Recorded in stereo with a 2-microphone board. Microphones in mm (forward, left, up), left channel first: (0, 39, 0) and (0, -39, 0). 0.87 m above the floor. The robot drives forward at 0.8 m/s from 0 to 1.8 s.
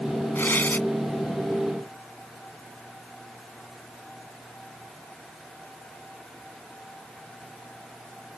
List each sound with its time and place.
0.3 s tearing paper: 25° left (ahead or behind)